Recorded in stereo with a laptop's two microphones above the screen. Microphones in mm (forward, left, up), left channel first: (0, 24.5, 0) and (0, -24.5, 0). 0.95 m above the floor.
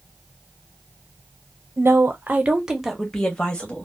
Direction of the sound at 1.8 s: 55° right (ahead or behind).